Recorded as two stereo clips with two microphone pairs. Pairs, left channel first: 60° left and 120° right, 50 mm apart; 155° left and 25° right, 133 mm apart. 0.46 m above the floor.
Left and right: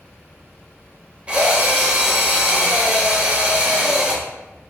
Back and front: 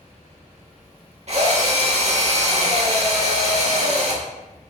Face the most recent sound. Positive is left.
turn(degrees=-60)